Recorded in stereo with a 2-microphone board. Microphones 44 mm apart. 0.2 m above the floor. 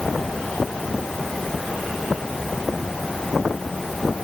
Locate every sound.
Only background noise.